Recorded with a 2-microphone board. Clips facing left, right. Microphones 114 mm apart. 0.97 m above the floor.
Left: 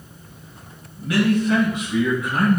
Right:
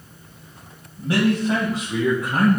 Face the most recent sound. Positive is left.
turn(degrees=-45)  # may be behind; listen again after turning